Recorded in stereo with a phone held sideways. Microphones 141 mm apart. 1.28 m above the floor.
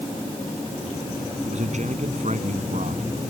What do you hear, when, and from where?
1.4 s a man speaking: 55° right (ahead or behind)